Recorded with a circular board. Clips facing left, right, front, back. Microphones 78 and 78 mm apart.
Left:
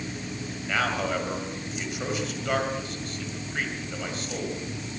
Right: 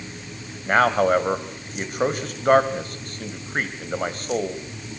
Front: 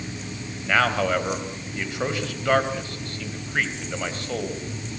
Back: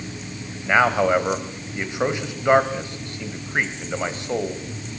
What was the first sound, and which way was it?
A man speaking, 115° right.